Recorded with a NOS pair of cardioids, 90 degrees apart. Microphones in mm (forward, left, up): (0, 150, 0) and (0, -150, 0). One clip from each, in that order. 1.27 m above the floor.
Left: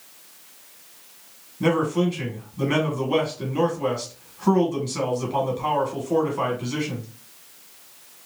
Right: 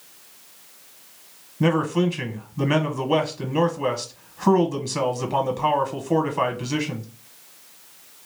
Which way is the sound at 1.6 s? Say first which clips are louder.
Even; 40° right.